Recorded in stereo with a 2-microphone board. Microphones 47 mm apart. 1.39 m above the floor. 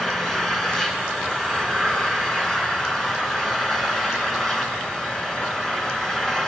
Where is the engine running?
10° left (ahead or behind), 3.5 m.